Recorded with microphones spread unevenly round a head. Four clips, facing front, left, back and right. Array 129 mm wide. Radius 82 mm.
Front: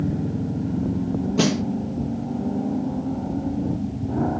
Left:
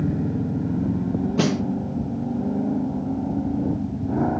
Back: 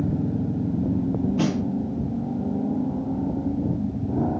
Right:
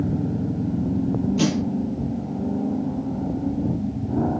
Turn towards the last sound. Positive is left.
turn(degrees=25)